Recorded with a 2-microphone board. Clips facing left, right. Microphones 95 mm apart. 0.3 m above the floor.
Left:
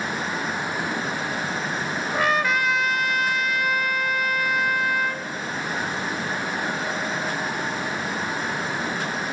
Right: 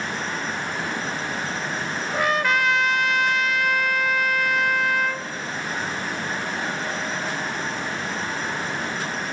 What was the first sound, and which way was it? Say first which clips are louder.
A trumpet: right 1 dB; centre (ahead or behind).